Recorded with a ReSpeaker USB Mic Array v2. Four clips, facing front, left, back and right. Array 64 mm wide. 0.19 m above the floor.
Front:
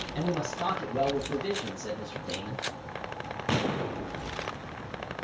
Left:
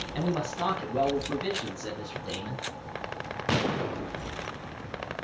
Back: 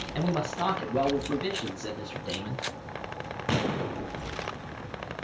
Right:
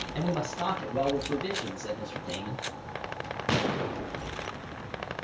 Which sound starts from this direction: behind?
A man speaking, at 0.1 s.